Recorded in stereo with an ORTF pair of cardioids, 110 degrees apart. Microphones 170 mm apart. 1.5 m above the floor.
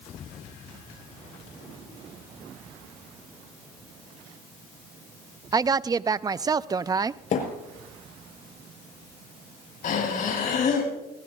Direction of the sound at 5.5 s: 20° right.